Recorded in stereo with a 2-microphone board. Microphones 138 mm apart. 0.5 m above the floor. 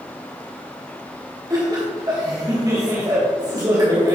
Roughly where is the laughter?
Right.